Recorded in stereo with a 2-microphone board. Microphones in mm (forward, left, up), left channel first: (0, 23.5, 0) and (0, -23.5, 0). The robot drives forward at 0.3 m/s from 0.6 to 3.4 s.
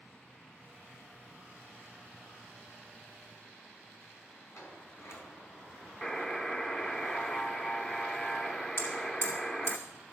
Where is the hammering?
55° left (ahead or behind), 3.5 m.